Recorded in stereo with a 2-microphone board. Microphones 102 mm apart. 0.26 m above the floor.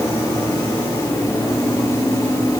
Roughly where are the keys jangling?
I don't hear keys jangling.